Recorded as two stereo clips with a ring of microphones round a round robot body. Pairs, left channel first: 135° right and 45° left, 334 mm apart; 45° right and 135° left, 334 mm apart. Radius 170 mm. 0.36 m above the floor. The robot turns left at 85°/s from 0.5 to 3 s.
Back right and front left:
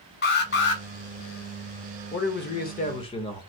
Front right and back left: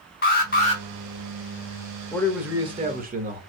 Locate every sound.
0.2 s an alarm: 90° right, 1.3 m; by 0.8 s 120° right, 1.3 m
2.1 s a man speaking: 115° right, 0.9 m; by 3.4 s 165° left, 0.9 m